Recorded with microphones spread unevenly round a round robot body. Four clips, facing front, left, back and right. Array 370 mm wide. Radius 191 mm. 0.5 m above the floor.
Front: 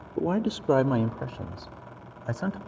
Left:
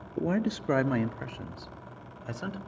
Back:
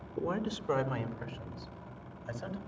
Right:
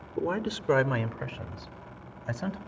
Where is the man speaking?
20° left, 1.0 m; by 2.6 s straight ahead, 2 m.